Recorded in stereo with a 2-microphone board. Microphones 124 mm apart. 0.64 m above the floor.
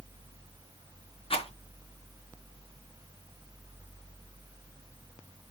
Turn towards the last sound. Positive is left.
turn(degrees=50)  # may be behind; listen again after turning